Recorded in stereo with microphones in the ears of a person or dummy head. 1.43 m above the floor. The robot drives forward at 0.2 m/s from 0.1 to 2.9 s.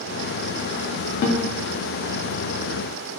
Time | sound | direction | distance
1.2 | a guitar | 55° left (ahead or behind) | 0.5 m